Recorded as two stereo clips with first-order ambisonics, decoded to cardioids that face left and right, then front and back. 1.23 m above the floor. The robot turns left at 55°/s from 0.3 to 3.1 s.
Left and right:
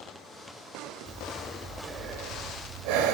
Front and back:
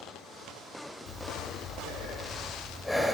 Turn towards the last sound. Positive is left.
turn(degrees=-95)